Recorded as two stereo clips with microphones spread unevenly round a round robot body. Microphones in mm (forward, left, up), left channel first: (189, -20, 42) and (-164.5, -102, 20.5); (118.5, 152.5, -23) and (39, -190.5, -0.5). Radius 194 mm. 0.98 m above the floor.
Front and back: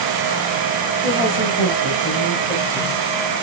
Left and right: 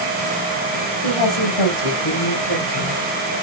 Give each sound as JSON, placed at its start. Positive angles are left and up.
{"t": 1.0, "sound": "a woman speaking", "azimuth_deg": 85, "distance_m": 5.5}